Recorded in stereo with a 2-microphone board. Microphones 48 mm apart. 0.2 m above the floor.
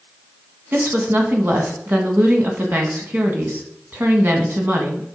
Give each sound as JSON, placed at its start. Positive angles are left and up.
{"t": 0.7, "sound": "a woman speaking", "side_deg": -45, "distance_m": 1.6}